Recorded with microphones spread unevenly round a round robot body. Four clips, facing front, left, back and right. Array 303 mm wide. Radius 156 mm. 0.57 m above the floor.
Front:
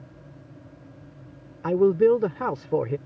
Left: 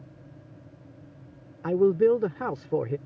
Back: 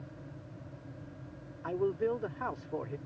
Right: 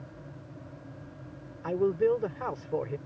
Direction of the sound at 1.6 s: 30° left.